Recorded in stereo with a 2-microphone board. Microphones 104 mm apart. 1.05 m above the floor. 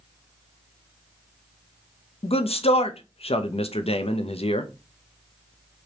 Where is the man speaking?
70° left (ahead or behind), 0.5 m.